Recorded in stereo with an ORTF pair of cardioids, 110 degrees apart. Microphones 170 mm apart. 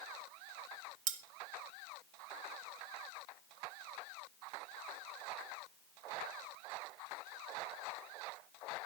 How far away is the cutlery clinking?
About 1.8 m.